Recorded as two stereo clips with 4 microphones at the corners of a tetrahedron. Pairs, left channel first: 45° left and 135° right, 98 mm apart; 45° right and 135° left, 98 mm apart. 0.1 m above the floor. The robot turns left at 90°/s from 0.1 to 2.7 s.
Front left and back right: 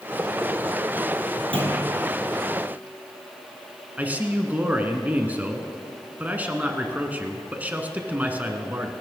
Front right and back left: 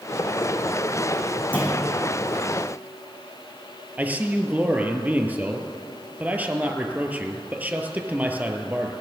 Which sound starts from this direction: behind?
A man speaking, at 4.0 s.